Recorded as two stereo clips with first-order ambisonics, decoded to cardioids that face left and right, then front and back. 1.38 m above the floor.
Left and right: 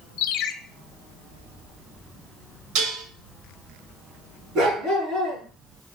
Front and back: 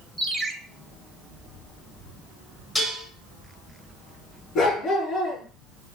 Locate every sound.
0.2 s a ringtone: 90° left, 1.1 m
2.8 s dishes clattering: 80° right, 4 m
4.5 s a dog barking: 40° right, 6.5 m